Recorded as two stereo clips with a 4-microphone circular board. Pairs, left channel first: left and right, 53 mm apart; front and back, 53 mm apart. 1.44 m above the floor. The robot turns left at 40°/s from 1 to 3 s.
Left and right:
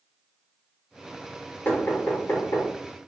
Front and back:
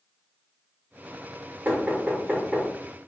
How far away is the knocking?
About 1.7 m.